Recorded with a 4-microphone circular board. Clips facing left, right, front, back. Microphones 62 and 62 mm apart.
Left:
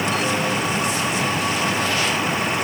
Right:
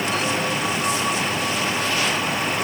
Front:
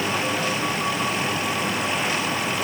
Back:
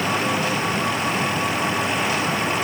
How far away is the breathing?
I don't hear breathing.